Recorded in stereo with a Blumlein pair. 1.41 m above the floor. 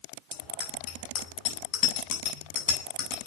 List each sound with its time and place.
0.3 s a bicycle bell: 35° left, 8 m; by 3.3 s 45° left, 9.5 m